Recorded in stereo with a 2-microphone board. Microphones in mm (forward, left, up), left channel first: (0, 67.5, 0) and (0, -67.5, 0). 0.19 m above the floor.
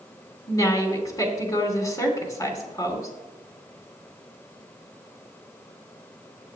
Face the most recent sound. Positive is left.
turn(degrees=25)  # may be behind; listen again after turning